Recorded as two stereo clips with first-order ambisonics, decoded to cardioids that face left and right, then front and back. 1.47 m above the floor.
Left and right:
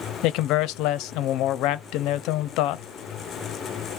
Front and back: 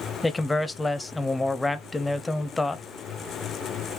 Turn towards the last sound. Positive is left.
turn(degrees=80)